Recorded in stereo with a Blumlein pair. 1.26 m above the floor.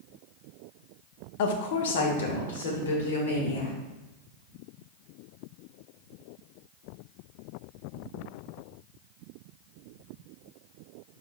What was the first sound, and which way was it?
A woman speaking, 50° left.